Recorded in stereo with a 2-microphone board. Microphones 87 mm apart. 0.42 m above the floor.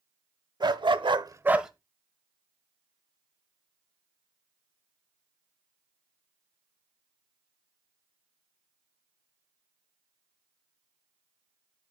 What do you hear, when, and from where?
0.6 s a dog barking: 55° right (ahead or behind), 1.0 m; by 1.7 s 5° right (ahead or behind), 0.9 m